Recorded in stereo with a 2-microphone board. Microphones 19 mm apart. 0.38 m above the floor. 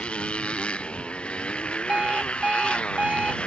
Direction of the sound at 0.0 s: 65° left (ahead or behind).